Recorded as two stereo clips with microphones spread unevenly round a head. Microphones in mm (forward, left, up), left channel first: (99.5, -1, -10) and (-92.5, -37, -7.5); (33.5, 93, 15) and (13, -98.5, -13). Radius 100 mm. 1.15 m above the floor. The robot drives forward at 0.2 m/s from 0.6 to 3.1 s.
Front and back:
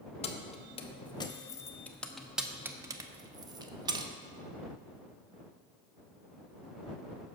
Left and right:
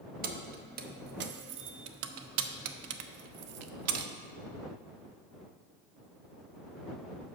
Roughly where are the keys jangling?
Ahead right.